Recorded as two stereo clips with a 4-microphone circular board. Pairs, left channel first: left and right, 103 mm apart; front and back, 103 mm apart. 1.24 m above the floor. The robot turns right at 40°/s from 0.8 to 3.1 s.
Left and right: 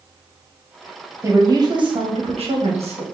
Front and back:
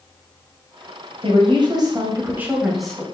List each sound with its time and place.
1.2 s a woman speaking: 155° right, 0.8 m; by 3.0 s 80° right, 0.8 m